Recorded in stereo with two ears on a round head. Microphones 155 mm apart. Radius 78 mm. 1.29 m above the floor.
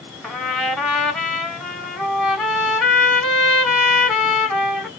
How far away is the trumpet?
About 1.4 m.